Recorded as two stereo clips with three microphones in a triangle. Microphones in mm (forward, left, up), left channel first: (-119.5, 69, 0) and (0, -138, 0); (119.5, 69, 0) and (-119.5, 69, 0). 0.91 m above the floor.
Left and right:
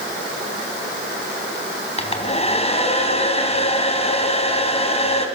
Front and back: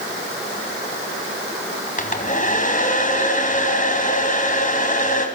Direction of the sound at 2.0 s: 55° left.